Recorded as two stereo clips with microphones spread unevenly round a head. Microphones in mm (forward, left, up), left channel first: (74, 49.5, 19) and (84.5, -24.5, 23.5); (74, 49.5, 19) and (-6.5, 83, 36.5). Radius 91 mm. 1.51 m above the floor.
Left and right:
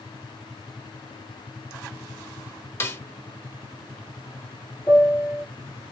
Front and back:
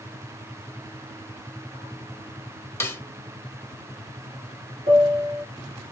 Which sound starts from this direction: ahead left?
A snare drum, at 2.8 s.